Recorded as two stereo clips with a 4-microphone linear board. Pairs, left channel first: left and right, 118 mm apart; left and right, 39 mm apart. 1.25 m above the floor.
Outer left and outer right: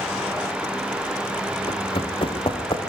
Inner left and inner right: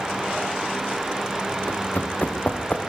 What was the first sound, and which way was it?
Running footsteps, 50° left (ahead or behind).